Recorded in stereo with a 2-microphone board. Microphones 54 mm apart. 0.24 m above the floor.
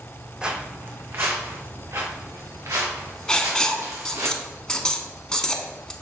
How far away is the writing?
About 0.5 m.